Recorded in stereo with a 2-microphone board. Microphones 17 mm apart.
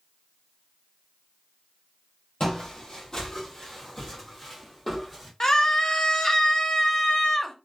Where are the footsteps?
40° left (ahead or behind), 1.5 m; by 5.3 s 5° right (ahead or behind), 1.7 m.